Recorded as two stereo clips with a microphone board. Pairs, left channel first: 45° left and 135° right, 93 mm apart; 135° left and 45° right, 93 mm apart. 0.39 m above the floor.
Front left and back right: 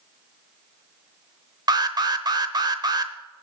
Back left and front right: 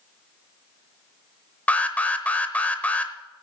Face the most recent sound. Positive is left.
turn(degrees=-155)